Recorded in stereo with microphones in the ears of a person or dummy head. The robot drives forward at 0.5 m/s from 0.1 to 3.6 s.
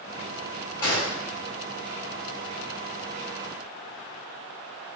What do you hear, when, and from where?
0.8 s a gunshot: 20° left (ahead or behind), 1.9 m